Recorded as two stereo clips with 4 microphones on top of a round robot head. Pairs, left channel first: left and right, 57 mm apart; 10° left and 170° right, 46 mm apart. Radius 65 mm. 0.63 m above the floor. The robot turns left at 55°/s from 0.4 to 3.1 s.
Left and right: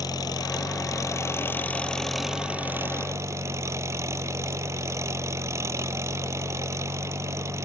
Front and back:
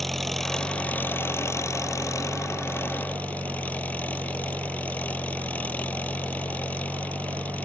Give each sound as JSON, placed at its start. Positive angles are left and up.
{"t": 0.0, "sound": "an engine running", "azimuth_deg": 95}